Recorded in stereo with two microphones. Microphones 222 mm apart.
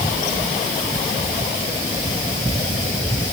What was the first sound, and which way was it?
Only background noise.